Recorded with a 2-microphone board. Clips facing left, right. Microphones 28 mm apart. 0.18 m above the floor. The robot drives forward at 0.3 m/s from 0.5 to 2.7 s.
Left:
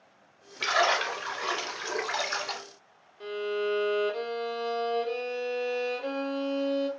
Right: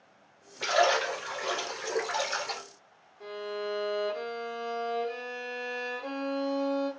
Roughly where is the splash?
Left.